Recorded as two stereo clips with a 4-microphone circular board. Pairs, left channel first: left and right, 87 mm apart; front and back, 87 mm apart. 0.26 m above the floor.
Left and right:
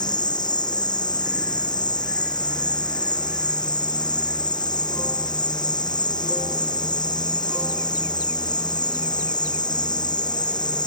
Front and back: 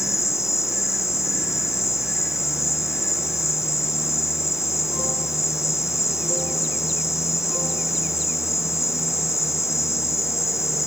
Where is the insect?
55° left.